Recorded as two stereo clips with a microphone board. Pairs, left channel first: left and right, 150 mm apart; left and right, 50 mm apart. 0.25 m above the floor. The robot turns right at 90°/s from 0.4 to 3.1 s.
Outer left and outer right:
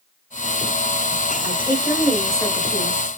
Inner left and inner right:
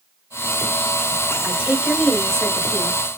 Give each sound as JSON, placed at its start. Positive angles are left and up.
{"t": 1.4, "sound": "a woman speaking", "azimuth_deg": -70, "distance_m": 1.3}